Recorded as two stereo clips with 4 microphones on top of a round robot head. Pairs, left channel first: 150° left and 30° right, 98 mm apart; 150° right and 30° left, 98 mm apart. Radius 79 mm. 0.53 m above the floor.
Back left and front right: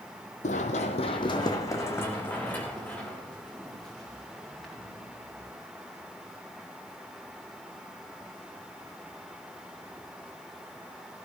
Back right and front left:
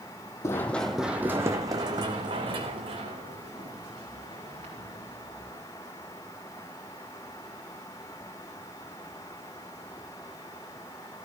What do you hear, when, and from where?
0.4 s running footsteps: 150° left, 1.2 m; by 5.5 s 55° left, 5.5 m